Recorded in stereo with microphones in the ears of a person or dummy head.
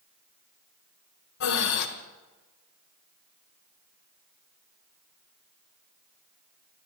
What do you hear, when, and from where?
1.4 s breathing: 55° left (ahead or behind), 1.4 m